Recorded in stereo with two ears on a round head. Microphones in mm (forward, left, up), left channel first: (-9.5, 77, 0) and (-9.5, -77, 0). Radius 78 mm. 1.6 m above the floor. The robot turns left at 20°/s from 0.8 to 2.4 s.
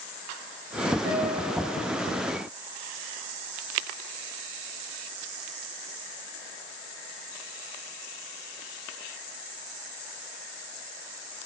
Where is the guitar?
85° right, 5 m.